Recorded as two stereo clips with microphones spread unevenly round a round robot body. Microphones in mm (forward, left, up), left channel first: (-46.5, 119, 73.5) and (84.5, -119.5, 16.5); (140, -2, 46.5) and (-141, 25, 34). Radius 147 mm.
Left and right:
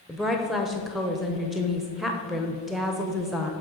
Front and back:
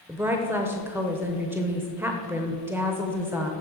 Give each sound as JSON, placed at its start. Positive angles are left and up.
{"t": 0.1, "sound": "a woman speaking", "azimuth_deg": -120, "distance_m": 0.9}